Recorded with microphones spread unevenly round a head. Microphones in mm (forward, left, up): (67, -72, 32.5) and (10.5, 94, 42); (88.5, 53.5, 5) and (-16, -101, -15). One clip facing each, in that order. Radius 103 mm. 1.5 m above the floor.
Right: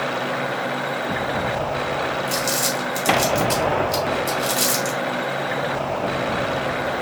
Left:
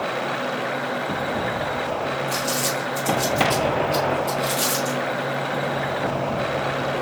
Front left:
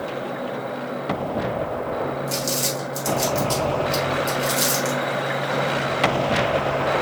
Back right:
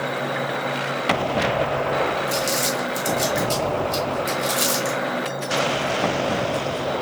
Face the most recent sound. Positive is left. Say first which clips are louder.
# right 1 dB, back right 2 dB
turn(degrees=-30)